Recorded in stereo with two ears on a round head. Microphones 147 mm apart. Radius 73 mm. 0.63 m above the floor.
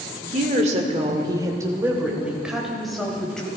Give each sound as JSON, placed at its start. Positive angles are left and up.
{"t": 0.2, "sound": "a woman speaking", "side_deg": -55, "distance_m": 1.7}